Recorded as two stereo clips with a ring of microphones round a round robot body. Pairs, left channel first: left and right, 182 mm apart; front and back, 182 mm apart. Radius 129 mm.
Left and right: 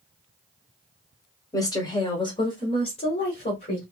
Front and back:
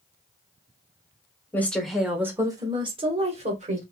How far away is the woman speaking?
About 1.0 m.